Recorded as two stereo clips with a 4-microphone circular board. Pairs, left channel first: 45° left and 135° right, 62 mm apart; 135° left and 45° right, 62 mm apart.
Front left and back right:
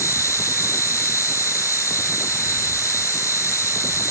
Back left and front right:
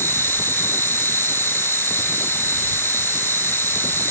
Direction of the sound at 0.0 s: 85° left.